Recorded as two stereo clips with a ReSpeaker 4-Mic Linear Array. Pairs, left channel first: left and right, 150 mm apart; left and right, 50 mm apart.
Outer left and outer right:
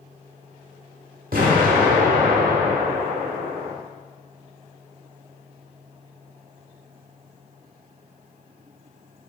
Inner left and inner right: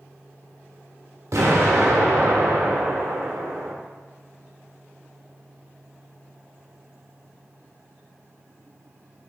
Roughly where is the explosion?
Right.